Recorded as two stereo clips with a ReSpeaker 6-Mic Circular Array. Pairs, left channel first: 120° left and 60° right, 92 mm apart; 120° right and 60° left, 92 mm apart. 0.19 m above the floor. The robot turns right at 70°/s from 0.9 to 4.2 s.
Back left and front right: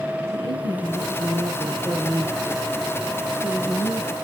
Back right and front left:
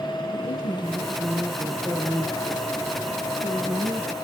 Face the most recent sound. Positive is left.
turn(degrees=135)